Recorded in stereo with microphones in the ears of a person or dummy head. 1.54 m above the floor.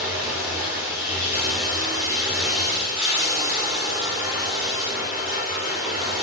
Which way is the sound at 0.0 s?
15° right (ahead or behind).